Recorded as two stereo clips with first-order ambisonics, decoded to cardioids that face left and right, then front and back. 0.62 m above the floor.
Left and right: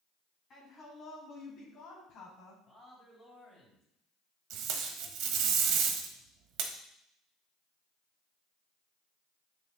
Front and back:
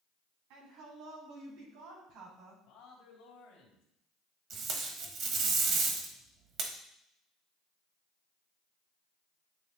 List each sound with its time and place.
0.5 s a woman speaking: 150° left, 4 m; by 2.5 s 130° left, 3 m
2.6 s a man speaking: 25° left, 3 m
4.5 s tape being pulled: 125° right, 1.2 m